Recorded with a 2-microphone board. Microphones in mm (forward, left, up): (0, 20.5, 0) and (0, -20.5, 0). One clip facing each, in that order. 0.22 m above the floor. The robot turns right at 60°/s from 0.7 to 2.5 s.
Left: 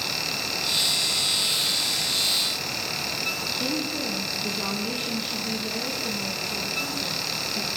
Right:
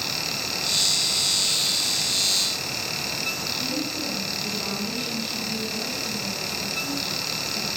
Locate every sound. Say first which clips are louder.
3.6 s a woman speaking: left 2 dB; 40° left (ahead or behind), 3 m